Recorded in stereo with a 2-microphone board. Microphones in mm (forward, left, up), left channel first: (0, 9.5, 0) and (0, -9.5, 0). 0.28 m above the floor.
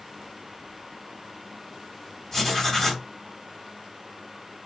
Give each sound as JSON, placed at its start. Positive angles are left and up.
{"t": 2.3, "sound": "writing", "side_deg": 15, "distance_m": 1.9}